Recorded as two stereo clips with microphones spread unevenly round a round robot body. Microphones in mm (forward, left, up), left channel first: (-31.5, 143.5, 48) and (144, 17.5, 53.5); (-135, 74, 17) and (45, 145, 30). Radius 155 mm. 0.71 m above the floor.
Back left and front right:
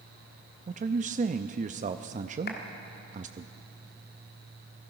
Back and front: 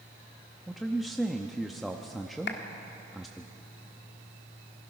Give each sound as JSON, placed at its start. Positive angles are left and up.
{"t": 0.7, "sound": "a man speaking", "azimuth_deg": -70, "distance_m": 0.5}
{"t": 2.5, "sound": "a clap", "azimuth_deg": -170, "distance_m": 1.7}